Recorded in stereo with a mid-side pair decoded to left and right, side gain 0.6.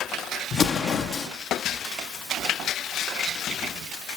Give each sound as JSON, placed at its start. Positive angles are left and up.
{"t": 0.5, "sound": "an explosion", "azimuth_deg": 45, "distance_m": 1.8}